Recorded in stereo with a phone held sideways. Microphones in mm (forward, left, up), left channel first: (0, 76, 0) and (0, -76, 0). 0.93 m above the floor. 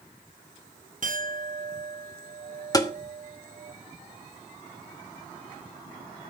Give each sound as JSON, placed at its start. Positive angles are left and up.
{"t": 1.0, "sound": "a clink", "side_deg": -60, "distance_m": 0.7}
{"t": 2.7, "sound": "tapping", "side_deg": 25, "distance_m": 1.0}